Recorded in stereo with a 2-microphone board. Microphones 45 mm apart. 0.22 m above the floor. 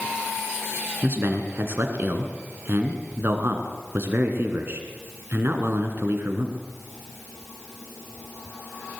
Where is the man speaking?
50° right (ahead or behind), 2.5 m.